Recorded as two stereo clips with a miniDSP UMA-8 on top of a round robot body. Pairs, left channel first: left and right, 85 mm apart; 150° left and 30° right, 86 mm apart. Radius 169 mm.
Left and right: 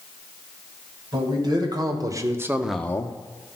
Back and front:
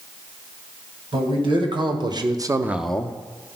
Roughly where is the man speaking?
Ahead right.